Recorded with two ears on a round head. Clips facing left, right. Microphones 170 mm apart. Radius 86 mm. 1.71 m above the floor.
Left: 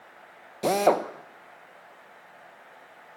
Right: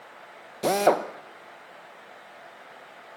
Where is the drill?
Centre (ahead or behind), 1.1 m.